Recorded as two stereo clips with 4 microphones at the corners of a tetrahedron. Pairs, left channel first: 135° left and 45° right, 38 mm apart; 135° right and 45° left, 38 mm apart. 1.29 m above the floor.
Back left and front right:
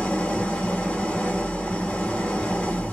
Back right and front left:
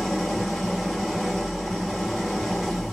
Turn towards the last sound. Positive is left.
turn(degrees=135)